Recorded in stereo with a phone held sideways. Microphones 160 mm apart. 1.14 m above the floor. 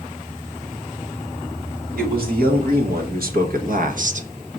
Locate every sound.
1.9 s a man speaking: 90° right, 2.5 m; by 4.3 s 55° right (ahead or behind), 0.8 m